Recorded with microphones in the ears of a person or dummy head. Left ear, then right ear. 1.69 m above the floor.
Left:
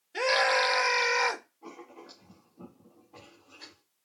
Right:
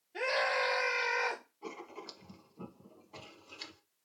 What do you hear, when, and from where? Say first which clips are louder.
0.1 s a scream: left 7 dB; 35° left (ahead or behind), 1.9 m
1.6 s writing: right 2 dB; 60° right (ahead or behind), 1.2 m